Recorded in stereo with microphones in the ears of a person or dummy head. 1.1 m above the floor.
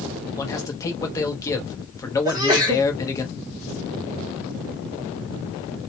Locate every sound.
0.4 s a man speaking: 15° left (ahead or behind), 0.7 m
2.2 s a sneeze: 20° right (ahead or behind), 0.6 m